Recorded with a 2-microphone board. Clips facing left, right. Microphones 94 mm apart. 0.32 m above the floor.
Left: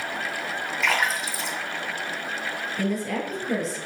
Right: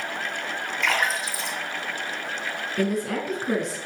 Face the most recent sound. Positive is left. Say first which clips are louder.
# right 2 dB
turn(degrees=-70)  # may be behind; listen again after turning